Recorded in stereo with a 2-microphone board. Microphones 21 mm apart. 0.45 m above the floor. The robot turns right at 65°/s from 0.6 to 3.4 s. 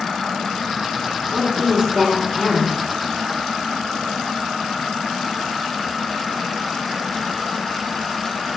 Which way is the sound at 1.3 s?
20° right (ahead or behind).